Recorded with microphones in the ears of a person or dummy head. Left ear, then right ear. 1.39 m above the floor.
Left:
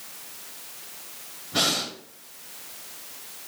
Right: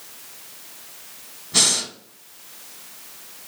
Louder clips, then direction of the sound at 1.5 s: Right 4 dB; 75° right (ahead or behind).